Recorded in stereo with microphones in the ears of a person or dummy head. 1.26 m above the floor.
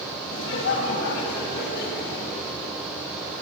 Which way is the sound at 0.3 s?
70° left (ahead or behind).